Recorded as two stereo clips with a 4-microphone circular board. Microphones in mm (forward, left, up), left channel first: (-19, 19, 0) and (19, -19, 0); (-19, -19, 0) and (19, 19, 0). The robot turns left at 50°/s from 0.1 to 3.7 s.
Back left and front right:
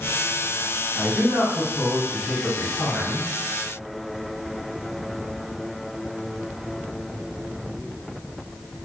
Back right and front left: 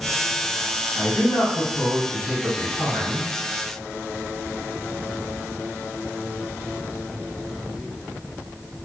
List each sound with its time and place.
0.9 s a man speaking: 80° right, 1.6 m; by 3.3 s 165° left, 1.6 m